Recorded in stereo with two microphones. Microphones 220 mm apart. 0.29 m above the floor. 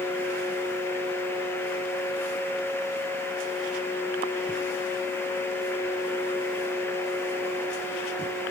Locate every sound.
Only background noise.